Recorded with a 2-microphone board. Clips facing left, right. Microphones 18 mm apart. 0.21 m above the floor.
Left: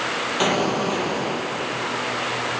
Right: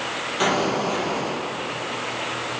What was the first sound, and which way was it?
An explosion, 15° left (ahead or behind).